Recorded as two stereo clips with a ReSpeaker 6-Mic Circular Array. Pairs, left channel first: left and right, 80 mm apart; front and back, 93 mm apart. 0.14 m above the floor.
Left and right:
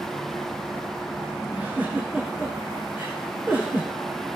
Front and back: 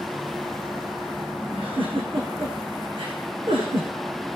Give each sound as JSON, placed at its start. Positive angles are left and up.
{"t": 1.5, "sound": "a giggle", "azimuth_deg": -160, "distance_m": 4.0}